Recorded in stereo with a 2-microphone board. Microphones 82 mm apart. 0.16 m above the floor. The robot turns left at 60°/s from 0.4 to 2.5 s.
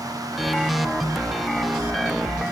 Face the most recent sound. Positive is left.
No sound to turn to.